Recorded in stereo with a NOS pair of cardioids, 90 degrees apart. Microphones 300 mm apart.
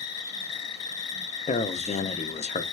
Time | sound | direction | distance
0.0 | an insect | 55° left | 0.8 m
1.5 | a man speaking | 20° left | 0.5 m